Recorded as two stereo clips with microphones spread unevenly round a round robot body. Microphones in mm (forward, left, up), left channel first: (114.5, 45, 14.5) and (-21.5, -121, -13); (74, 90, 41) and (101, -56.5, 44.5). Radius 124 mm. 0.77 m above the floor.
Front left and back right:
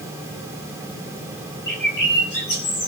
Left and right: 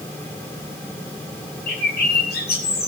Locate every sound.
1.7 s a bird: 105° left, 4 m